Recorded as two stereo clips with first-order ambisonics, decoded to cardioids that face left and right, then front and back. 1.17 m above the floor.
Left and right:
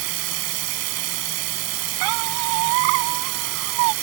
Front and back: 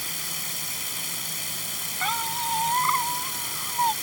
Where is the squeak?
95° right.